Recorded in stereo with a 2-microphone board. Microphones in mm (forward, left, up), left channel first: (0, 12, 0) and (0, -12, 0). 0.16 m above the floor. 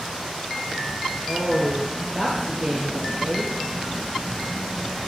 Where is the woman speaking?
20° right (ahead or behind), 3 m.